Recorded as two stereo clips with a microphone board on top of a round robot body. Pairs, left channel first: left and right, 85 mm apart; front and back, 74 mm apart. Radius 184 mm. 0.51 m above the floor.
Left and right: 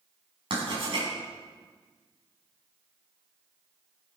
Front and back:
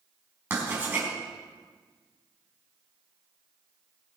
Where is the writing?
115° right, 5 m.